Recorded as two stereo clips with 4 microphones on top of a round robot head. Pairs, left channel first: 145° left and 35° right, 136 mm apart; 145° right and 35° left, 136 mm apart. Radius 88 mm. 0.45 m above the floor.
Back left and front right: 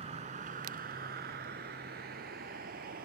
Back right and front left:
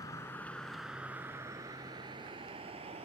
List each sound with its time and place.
0.0 s a vehicle: 80° right; by 3.1 s 15° right